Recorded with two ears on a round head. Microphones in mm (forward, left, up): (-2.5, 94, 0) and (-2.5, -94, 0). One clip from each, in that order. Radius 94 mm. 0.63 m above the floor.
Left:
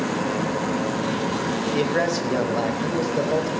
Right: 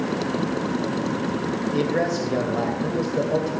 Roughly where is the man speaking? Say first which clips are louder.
Left 1 dB; left.